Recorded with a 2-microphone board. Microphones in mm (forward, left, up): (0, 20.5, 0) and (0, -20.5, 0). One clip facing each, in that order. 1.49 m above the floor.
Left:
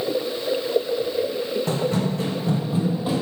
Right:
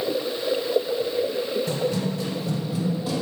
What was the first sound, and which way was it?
Running footsteps, 50° left (ahead or behind).